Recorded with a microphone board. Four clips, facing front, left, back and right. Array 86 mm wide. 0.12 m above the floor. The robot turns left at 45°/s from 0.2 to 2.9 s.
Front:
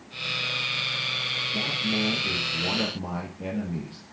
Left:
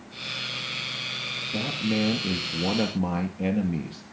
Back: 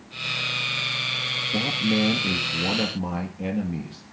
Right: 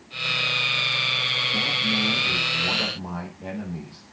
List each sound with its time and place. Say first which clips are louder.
1.5 s a man speaking: left 3 dB, back 6 dB; 170° left, 2 m; by 4.0 s 105° left, 2 m